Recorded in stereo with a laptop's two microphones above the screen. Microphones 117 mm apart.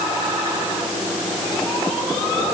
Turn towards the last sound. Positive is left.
No sound to turn to.